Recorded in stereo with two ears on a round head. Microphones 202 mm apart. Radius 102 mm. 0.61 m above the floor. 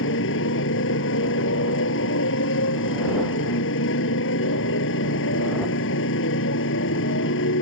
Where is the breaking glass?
No breaking glass in this recording.